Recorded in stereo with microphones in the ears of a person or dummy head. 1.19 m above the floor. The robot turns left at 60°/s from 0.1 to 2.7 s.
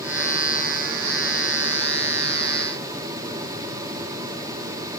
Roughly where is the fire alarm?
No fire alarm in this recording.